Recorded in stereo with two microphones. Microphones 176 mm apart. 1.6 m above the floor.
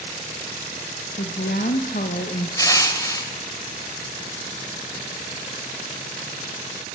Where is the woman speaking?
70° left (ahead or behind), 2.5 m; by 2.5 s 50° left (ahead or behind), 1.9 m.